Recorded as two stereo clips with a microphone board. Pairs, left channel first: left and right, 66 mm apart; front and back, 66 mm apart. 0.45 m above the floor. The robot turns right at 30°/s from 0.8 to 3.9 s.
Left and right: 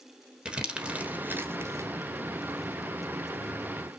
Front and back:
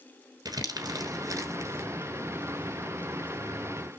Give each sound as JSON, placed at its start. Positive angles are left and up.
{"t": 0.5, "sound": "crumpling", "azimuth_deg": -165, "distance_m": 1.3}